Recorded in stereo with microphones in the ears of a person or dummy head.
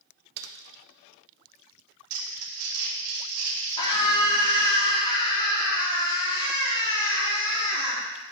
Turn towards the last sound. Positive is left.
turn(degrees=25)  # may be behind; listen again after turning